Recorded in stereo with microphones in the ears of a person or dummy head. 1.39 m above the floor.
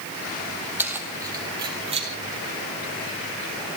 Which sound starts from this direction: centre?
Keys jangling, at 0.8 s.